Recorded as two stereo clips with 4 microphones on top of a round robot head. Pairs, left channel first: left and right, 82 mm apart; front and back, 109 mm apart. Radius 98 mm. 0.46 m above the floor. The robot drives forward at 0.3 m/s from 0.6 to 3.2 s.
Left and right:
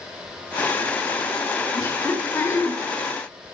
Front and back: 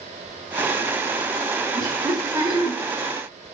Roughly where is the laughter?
Behind left.